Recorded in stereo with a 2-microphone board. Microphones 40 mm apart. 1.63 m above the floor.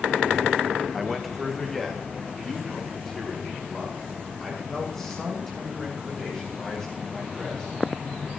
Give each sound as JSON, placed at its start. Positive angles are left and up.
{"t": 0.9, "sound": "a man speaking", "side_deg": 0, "distance_m": 1.2}